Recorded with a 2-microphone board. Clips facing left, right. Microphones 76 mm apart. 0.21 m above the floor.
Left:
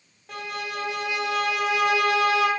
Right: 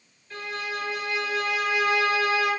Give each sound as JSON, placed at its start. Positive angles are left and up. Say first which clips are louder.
{"t": 0.3, "sound": "a violin", "louder": "even", "side_deg": 85, "distance_m": 1.8}